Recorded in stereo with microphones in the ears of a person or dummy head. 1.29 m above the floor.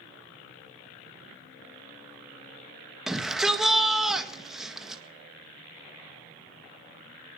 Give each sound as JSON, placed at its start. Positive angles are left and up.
{"t": 3.1, "sound": "a shout", "side_deg": 0, "distance_m": 1.6}